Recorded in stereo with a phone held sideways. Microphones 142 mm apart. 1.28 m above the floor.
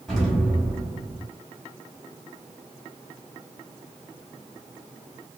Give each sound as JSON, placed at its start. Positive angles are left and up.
{"t": 0.1, "sound": "an explosion", "side_deg": 0, "distance_m": 1.2}